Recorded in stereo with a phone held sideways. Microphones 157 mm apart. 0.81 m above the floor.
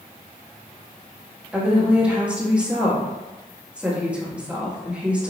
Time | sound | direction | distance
1.5 | a woman speaking | 10° right (ahead or behind) | 1.0 m